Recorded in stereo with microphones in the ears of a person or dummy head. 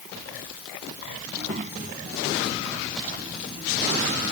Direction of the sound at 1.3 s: 35° right (ahead or behind).